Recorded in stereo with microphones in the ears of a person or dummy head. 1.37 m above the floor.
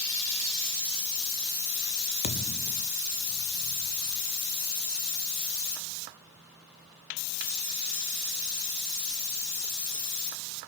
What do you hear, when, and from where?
2.2 s a thud: 35° left (ahead or behind), 1.1 m